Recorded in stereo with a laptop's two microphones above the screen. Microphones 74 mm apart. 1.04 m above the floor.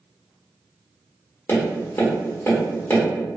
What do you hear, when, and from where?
1.5 s tapping: 30° left (ahead or behind), 1.0 m